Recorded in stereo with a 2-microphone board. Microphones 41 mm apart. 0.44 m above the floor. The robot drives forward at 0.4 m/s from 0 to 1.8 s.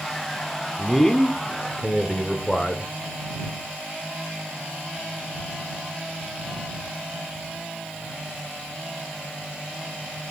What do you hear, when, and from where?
0.8 s a man speaking: 10° left (ahead or behind), 0.8 m